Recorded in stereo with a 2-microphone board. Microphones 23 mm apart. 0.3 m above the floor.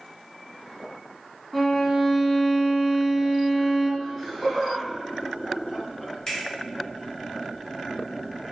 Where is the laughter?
25° left (ahead or behind), 1.6 m.